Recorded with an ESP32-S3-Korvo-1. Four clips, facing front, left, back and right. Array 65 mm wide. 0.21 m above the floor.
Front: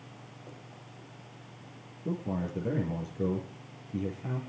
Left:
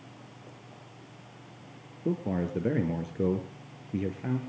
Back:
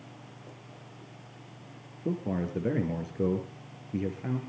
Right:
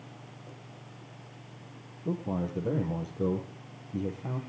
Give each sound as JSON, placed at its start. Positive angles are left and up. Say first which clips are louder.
{"t": 2.0, "sound": "a man speaking", "louder": "left 2 dB, back 2 dB", "azimuth_deg": 120, "distance_m": 6.0}